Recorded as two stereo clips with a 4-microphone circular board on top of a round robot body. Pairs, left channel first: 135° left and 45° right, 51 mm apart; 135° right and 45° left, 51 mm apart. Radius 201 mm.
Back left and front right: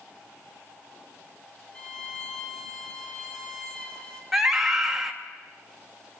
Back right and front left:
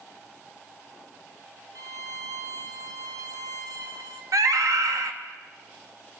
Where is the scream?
40° left, 3 m.